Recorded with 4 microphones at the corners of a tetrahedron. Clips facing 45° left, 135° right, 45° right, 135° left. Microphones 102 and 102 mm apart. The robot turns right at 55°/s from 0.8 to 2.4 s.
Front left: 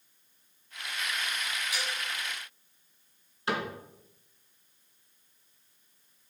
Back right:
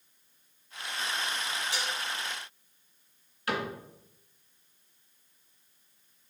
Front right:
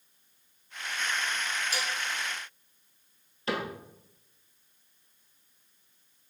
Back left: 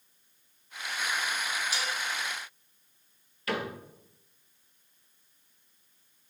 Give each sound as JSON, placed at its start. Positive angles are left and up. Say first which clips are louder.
{"t": 1.7, "sound": "dishes clattering", "louder": "back right 1 dB, even", "azimuth_deg": -80, "distance_m": 1.7}
{"t": 3.5, "sound": "a cupboard door", "louder": "even, front right 1 dB", "azimuth_deg": -5, "distance_m": 1.9}